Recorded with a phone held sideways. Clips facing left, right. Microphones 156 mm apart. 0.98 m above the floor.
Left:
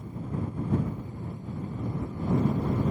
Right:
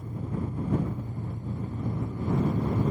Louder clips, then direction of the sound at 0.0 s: Right 1 dB; 45° right (ahead or behind).